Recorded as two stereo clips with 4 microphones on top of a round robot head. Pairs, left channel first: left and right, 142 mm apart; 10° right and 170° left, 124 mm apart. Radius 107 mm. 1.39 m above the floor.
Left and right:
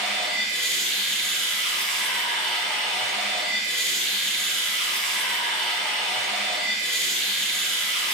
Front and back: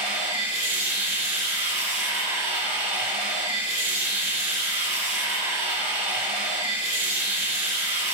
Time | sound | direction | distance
0.0 | running water | 175° left | 4.5 m